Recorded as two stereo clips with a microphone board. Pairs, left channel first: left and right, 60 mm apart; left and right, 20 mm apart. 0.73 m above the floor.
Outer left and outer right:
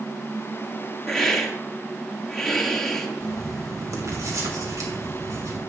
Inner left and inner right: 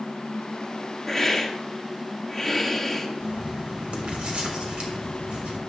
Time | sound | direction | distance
1.1 | a hiss | 10° left (ahead or behind) | 1.4 m
3.2 | writing | 70° right (ahead or behind) | 3 m